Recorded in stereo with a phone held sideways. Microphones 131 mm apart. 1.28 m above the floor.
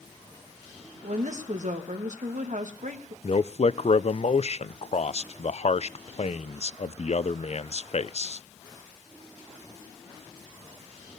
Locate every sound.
1.0 s a woman speaking: 70° right (ahead or behind), 2.0 m
3.2 s a man speaking: 55° left (ahead or behind), 0.5 m